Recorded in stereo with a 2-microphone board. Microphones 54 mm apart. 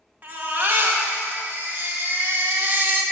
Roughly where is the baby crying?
Right.